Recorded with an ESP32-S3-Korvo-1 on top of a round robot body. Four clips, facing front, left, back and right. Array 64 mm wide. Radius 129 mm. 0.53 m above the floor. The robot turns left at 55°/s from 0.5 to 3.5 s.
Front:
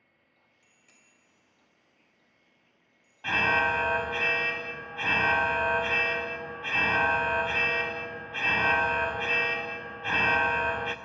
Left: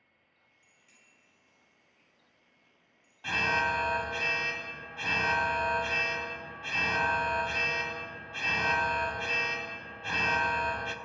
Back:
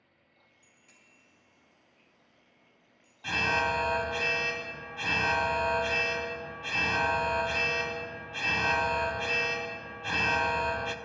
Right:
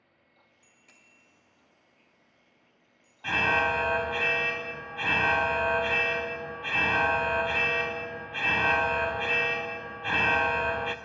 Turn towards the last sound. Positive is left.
turn(degrees=-45)